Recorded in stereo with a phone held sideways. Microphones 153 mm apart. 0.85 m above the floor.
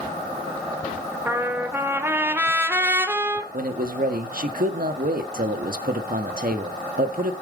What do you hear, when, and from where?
1.3 s a trumpet: 15° right (ahead or behind), 1.4 m
3.5 s a man speaking: 65° right (ahead or behind), 1.3 m